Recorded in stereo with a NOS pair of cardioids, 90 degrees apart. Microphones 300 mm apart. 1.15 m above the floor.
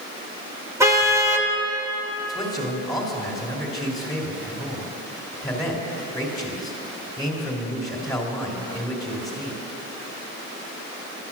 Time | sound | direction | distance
0.8 | a car horn | 10° right | 2 m
2.3 | a man speaking | 10° left | 3.5 m